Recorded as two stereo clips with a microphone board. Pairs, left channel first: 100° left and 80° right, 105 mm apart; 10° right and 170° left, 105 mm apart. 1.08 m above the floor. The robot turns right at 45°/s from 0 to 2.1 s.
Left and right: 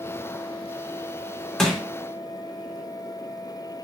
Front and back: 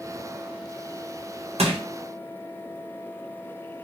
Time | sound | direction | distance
1.6 | crushing | 175° right | 0.7 m